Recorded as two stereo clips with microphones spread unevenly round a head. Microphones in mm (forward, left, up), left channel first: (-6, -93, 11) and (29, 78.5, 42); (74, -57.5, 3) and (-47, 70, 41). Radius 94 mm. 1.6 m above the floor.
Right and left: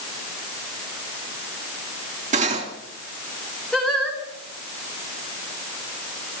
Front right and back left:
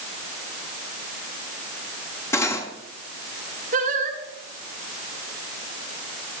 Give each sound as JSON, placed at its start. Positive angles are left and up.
{"t": 2.3, "sound": "cutlery clinking", "azimuth_deg": 35, "distance_m": 2.5}
{"t": 3.7, "sound": "singing", "azimuth_deg": 165, "distance_m": 3.0}